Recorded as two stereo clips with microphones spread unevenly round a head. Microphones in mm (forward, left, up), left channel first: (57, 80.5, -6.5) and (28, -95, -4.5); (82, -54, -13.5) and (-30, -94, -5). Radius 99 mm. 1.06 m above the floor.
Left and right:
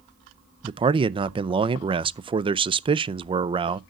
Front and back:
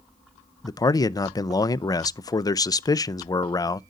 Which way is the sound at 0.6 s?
40° right.